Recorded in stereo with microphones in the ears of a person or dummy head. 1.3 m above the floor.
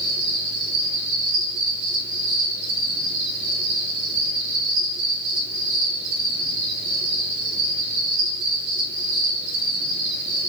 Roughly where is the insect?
Right.